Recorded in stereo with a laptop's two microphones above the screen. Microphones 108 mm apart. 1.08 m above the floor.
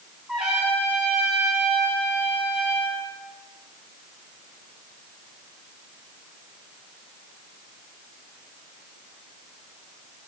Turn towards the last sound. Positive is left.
turn(degrees=-5)  # may be behind; listen again after turning